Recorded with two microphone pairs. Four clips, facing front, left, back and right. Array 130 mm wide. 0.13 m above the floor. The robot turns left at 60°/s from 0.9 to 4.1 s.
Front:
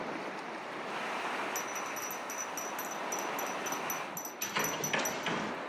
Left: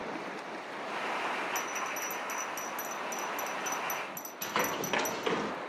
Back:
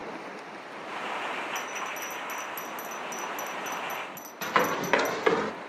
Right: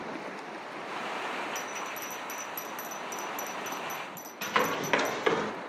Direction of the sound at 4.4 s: Straight behind.